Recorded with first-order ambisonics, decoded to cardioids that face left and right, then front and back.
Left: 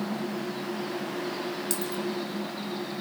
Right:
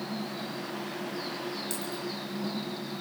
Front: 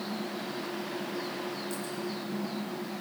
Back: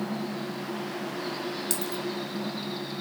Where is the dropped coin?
155° left, 2.5 m.